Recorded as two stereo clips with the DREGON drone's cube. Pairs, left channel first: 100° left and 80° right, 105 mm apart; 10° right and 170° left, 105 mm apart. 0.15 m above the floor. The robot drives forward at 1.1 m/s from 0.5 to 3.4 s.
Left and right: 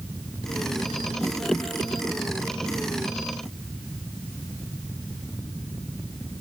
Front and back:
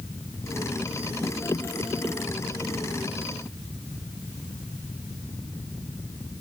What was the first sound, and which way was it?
Only background noise.